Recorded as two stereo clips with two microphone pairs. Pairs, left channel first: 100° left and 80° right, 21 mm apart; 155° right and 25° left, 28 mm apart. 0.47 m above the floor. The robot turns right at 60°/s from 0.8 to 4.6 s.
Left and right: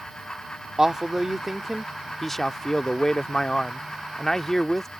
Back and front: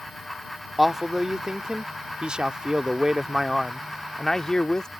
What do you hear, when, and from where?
0.8 s a man speaking: 60° right; by 4.9 s 170° left